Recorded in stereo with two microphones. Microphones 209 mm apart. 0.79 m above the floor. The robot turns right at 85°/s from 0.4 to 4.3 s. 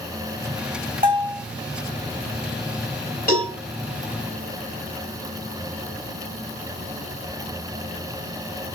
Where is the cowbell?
40° left (ahead or behind), 4 m; by 3.5 s 20° left (ahead or behind), 4 m.